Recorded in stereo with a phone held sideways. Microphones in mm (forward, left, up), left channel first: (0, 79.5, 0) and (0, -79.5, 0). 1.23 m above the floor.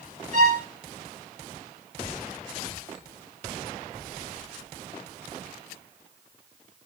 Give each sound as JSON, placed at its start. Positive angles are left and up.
{"t": 0.3, "sound": "a violin", "side_deg": -55, "distance_m": 2.0}